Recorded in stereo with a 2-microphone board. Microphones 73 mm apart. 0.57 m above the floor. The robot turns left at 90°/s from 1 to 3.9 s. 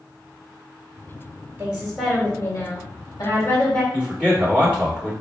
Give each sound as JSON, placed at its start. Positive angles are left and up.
{"t": 1.6, "sound": "a woman speaking", "azimuth_deg": -150, "distance_m": 1.9}
{"t": 3.9, "sound": "a man speaking", "side_deg": -10, "distance_m": 1.9}